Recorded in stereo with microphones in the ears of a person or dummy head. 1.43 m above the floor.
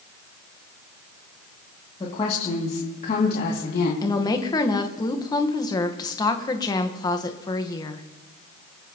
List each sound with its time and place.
2.0 s a woman speaking: 30° left (ahead or behind), 2.5 m; by 3.9 s 60° left (ahead or behind), 2.5 m
4.0 s a woman speaking: 20° left (ahead or behind), 1.3 m